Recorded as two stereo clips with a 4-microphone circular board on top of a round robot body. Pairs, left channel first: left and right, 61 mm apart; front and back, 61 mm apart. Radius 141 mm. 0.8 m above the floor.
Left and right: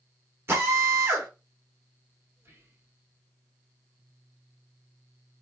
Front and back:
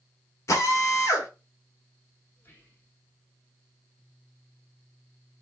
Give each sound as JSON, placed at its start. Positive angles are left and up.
{"t": 0.5, "sound": "a drill", "azimuth_deg": -40, "distance_m": 1.4}
{"t": 2.4, "sound": "whispering", "azimuth_deg": -50, "distance_m": 1.5}